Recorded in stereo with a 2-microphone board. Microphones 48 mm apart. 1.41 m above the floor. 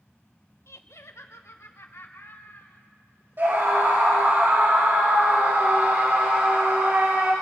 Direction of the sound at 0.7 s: 70° left (ahead or behind).